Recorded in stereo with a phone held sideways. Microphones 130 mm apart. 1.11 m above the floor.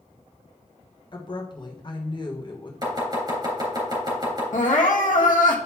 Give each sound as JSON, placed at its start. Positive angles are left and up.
{"t": 1.1, "sound": "a woman speaking", "side_deg": 35, "distance_m": 1.2}
{"t": 2.8, "sound": "chopping", "side_deg": -35, "distance_m": 3.0}
{"t": 4.5, "sound": "crying", "side_deg": 80, "distance_m": 1.0}